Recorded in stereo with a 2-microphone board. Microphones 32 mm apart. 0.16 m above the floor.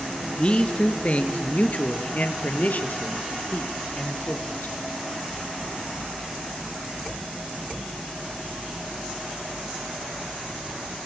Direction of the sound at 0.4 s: 35° left (ahead or behind).